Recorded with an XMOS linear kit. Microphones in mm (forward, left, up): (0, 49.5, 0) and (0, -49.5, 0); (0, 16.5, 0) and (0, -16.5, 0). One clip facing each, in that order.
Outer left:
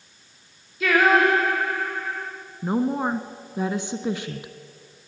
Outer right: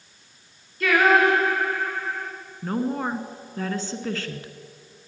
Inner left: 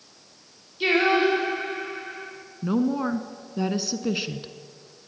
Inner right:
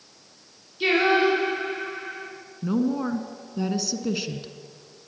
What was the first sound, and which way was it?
Singing, centre (ahead or behind).